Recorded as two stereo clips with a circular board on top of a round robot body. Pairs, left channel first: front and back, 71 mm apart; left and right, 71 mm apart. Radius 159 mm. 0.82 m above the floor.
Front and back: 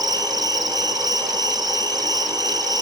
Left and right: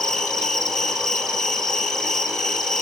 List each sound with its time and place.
0.0 s an insect: 170° left, 3 m